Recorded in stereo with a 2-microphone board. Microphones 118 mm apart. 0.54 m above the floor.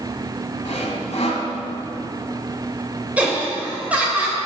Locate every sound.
0.7 s sawing: 75° left (ahead or behind), 1.2 m
3.2 s laughter: 10° right (ahead or behind), 2.5 m